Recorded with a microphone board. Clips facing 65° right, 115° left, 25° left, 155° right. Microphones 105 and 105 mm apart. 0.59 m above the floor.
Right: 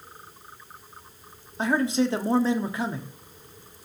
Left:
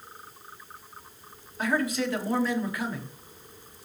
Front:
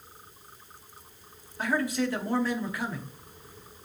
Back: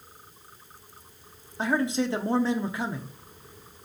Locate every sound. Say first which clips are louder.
1.6 s a man speaking: right 4 dB, back 2 dB; 110° right, 1.1 m